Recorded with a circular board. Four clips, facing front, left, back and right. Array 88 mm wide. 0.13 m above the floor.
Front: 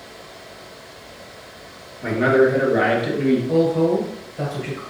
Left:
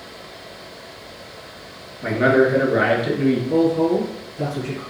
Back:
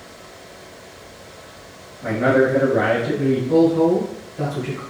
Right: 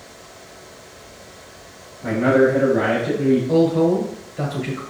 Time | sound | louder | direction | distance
2.0 | a man speaking | even, front 1 dB | 70° left | 2.5 m
3.5 | a woman speaking | even, back 7 dB | 85° right | 1.7 m